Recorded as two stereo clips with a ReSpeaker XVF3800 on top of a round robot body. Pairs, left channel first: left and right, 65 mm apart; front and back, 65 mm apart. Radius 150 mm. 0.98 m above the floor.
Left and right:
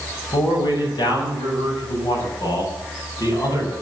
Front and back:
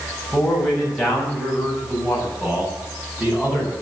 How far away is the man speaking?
About 6.5 m.